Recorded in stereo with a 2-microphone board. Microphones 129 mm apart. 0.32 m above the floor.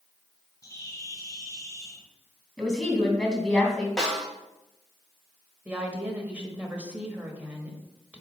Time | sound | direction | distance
0.6 | a bird | 25° left (ahead or behind) | 2 m
2.6 | a woman speaking | 5° left (ahead or behind) | 3 m
4.0 | a snare drum | 5° left (ahead or behind) | 1.7 m
5.7 | a woman speaking | 10° right (ahead or behind) | 1.4 m